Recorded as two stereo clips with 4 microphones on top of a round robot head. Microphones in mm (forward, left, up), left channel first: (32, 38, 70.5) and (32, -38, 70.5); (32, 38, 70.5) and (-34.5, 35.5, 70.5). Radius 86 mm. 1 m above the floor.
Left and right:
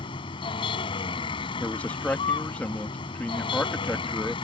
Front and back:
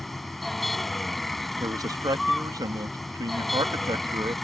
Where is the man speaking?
160° left.